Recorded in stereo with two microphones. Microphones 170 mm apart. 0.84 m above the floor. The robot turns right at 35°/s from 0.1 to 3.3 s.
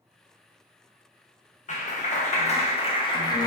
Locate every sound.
1.7 s a clap: 90° left, 0.6 m; by 3.5 s 145° left, 0.6 m